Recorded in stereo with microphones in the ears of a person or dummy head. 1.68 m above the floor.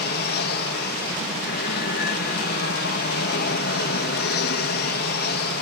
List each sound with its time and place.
0.0 s an aircraft: 50° left (ahead or behind)